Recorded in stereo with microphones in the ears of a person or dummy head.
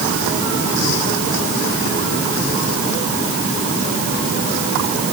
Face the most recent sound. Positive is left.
No sound to turn to.